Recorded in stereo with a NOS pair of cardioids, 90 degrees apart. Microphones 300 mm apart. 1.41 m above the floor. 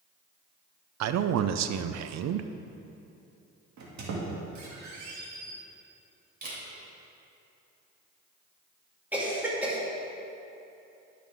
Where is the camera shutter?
35° right, 3 m.